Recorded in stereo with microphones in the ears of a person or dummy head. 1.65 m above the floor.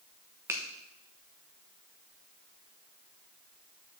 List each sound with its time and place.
0.5 s a finger snap: 5° right (ahead or behind), 1.1 m